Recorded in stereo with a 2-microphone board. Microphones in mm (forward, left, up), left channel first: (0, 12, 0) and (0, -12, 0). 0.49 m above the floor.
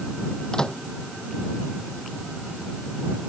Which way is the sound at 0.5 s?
35° left (ahead or behind).